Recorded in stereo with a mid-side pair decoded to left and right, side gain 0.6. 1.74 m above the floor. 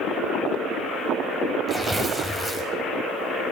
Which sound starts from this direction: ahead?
Tearing paper, at 1.7 s.